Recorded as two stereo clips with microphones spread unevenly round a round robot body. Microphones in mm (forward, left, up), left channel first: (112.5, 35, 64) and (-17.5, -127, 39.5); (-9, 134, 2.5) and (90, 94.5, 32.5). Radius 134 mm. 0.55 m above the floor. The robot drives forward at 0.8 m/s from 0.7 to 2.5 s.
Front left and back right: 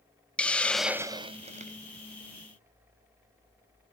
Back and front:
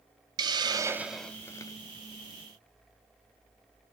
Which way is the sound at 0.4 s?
45° right.